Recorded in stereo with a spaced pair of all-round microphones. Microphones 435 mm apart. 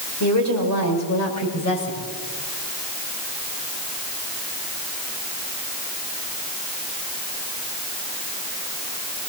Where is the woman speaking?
40° left (ahead or behind), 5.5 m; by 2.1 s 35° left (ahead or behind), 6.5 m.